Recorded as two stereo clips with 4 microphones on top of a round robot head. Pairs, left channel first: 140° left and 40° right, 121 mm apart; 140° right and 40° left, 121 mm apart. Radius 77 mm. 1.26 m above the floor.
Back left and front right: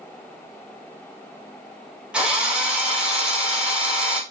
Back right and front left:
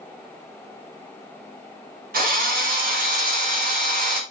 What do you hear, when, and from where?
2.1 s a drill: 40° left, 4 m